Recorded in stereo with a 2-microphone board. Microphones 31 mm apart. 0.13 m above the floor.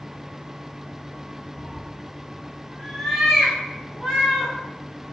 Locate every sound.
1.6 s a cat meowing: 15° left (ahead or behind), 0.7 m; by 4.5 s 15° right (ahead or behind), 2 m